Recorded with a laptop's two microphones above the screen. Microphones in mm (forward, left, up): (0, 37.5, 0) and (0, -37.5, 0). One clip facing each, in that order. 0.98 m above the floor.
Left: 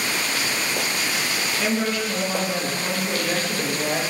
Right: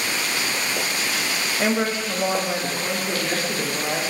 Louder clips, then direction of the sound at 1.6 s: Right 2 dB; 35° right (ahead or behind).